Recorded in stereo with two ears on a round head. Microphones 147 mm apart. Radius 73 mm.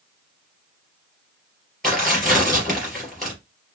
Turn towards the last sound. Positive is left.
turn(degrees=5)  # may be behind; listen again after turning